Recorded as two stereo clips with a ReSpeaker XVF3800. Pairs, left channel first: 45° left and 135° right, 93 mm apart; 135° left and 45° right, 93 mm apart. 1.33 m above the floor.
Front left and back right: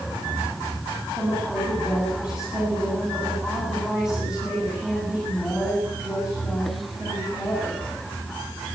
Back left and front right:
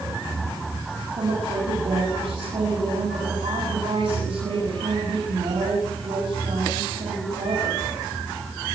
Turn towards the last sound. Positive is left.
turn(degrees=-50)